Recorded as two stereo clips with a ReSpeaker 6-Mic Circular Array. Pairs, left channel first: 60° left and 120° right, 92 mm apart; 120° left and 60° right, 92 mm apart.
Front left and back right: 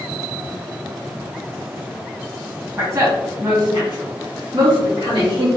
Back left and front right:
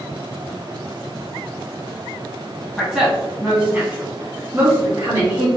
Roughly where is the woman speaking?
Behind right.